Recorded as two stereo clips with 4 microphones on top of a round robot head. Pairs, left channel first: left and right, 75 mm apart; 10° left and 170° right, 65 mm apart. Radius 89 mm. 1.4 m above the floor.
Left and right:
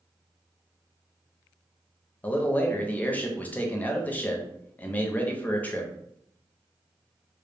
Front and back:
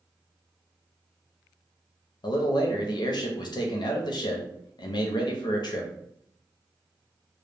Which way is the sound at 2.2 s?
20° left.